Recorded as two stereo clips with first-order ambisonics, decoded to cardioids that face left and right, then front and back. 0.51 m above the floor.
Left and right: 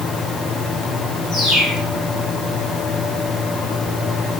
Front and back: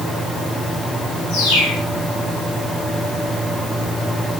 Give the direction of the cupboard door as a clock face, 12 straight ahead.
I don't hear a cupboard door.